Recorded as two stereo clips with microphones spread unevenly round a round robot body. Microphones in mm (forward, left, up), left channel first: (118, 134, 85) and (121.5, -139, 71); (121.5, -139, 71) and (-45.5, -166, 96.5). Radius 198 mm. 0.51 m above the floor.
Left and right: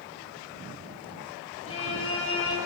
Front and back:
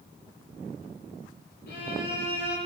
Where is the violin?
55° left, 9.5 m.